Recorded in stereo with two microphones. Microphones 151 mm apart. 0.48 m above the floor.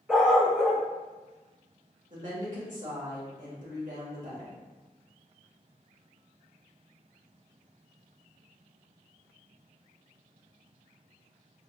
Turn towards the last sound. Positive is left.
turn(degrees=-60)  # may be behind; listen again after turning